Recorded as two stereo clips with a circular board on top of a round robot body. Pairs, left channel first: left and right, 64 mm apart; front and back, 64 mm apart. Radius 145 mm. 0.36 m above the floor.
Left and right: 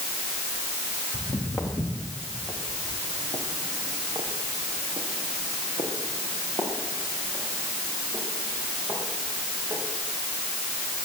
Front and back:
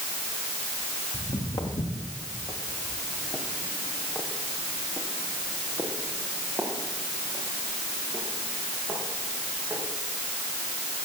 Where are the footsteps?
10° left, 4 m; by 9.8 s 115° right, 10 m.